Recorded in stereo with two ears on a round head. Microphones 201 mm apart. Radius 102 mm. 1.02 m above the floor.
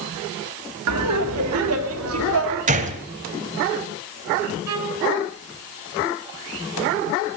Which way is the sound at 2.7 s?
35° right (ahead or behind).